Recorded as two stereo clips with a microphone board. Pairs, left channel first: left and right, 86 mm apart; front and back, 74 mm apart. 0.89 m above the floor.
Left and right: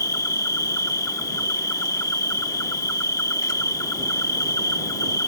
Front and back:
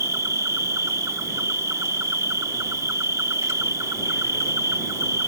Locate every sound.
0.0 s an insect: 135° left